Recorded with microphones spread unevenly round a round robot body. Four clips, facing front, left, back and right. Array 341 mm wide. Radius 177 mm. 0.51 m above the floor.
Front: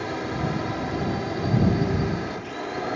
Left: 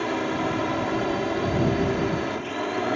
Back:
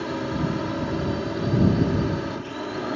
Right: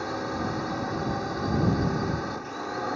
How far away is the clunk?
I don't hear a clunk.